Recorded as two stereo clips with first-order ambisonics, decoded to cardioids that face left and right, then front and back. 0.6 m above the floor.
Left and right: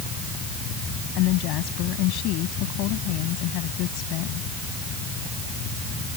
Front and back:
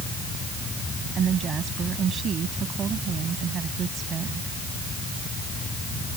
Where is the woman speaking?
120° left.